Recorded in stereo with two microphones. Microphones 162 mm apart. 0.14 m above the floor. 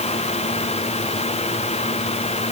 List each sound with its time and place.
Only background noise.